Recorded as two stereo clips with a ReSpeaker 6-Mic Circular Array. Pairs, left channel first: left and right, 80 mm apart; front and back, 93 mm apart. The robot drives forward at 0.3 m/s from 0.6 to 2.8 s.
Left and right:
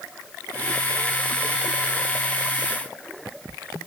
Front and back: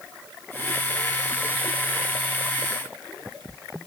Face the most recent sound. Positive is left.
No sound to turn to.